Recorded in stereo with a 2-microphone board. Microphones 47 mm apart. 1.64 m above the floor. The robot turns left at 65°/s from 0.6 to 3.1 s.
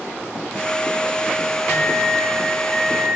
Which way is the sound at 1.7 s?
75° left.